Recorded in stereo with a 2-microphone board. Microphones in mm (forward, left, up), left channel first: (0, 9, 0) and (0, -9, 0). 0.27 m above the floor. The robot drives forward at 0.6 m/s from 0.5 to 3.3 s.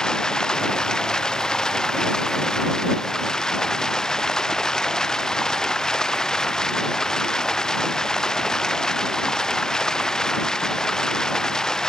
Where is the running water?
45° left (ahead or behind); by 11.9 s 40° left (ahead or behind).